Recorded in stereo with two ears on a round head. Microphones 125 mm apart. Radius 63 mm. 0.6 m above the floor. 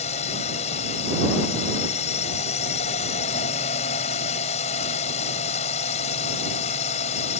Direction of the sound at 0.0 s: 50° left (ahead or behind).